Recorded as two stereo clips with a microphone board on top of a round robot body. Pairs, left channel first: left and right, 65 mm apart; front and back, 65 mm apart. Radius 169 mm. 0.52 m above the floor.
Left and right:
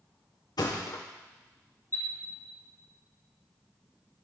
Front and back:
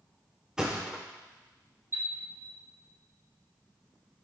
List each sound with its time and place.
0.6 s a thud: 100° left, 1.0 m
1.9 s a chime: 135° left, 3 m